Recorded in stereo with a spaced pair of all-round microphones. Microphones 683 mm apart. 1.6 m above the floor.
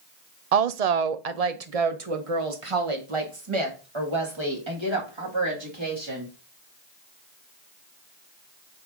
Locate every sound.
0.5 s a woman speaking: 60° right (ahead or behind), 0.6 m; by 6.3 s 40° right (ahead or behind), 3 m